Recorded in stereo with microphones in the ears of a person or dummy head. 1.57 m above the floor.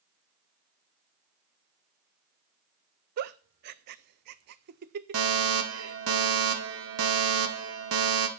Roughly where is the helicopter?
I don't hear a helicopter.